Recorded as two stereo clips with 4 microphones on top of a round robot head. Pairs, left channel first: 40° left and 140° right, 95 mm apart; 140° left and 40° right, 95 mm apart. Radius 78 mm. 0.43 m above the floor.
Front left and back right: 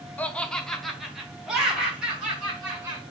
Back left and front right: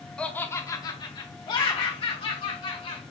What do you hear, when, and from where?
0.2 s laughter: 80° left, 0.8 m; by 3.0 s 145° left, 2 m